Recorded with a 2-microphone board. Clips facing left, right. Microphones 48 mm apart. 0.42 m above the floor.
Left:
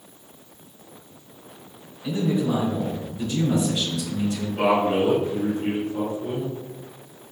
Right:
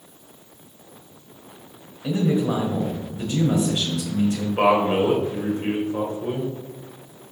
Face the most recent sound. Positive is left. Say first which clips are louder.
# right 2 dB
turn(degrees=-45)  # may be behind; listen again after turning